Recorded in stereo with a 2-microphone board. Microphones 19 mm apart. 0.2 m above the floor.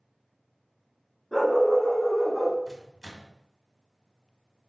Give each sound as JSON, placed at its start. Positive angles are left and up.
{"t": 1.3, "sound": "a dog barking", "side_deg": 10, "distance_m": 1.1}
{"t": 2.7, "sound": "a microwave", "side_deg": -20, "distance_m": 0.8}